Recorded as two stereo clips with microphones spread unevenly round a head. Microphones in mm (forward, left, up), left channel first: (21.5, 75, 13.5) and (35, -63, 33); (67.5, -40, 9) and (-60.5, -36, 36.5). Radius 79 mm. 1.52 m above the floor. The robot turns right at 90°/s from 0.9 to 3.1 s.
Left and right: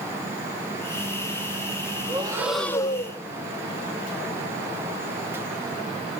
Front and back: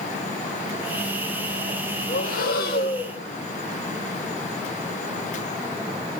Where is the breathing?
40° right, 1.0 m; by 3.2 s 50° left, 1.0 m.